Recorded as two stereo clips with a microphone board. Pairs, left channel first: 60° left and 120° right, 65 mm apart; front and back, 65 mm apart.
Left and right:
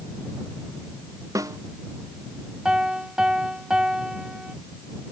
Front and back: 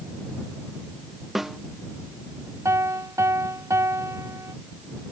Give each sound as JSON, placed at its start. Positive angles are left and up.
{"t": 1.4, "sound": "a snare drum", "azimuth_deg": -95}
{"t": 2.6, "sound": "a piano", "azimuth_deg": 165}